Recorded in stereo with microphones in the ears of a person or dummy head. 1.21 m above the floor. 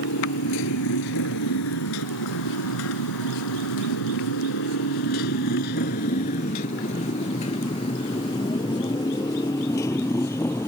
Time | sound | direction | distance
0.0 | a motorcycle | 60° left (ahead or behind) | ?